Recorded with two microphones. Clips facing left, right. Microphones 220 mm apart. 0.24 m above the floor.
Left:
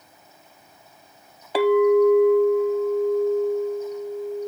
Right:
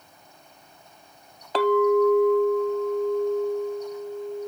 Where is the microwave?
No microwave in this recording.